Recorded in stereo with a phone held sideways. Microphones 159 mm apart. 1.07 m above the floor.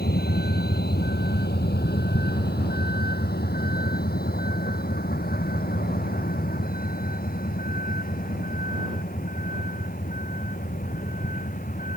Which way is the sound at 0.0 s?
80° left.